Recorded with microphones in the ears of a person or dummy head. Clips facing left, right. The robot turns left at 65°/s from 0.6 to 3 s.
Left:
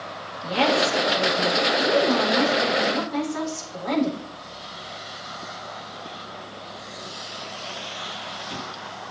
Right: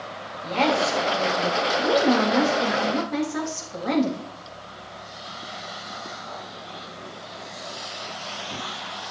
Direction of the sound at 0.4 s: 15° left.